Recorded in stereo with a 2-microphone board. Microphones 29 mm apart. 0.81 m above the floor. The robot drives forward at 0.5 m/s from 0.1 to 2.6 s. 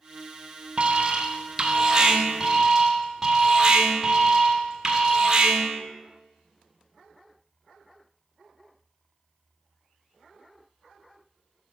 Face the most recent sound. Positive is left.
turn(degrees=-20)  # may be behind; listen again after turning